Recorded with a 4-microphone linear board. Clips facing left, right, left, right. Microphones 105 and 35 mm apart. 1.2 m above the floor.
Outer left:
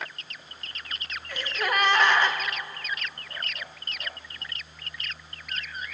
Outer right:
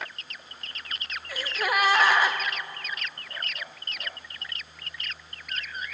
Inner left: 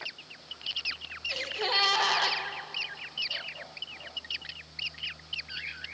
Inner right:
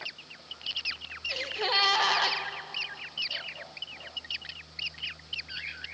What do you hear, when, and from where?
1.3 s a gasp: 5° right (ahead or behind), 0.6 m